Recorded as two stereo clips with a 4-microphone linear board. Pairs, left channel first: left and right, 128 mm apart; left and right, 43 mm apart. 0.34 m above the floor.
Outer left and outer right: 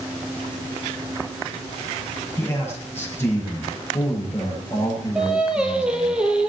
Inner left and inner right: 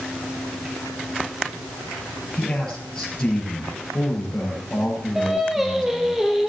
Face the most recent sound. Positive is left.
turn(degrees=-5)  # may be behind; listen again after turning